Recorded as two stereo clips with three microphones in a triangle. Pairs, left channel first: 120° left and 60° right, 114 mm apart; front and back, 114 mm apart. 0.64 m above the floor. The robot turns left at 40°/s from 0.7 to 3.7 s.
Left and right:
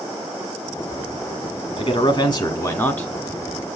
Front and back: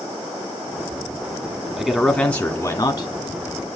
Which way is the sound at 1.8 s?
100° left.